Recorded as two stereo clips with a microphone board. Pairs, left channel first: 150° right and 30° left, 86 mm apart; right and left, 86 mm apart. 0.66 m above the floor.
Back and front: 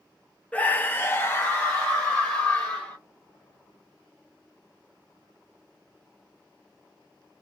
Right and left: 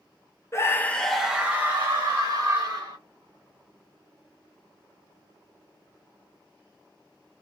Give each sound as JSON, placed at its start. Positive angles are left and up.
{"t": 0.5, "sound": "a scream", "azimuth_deg": -90, "distance_m": 0.5}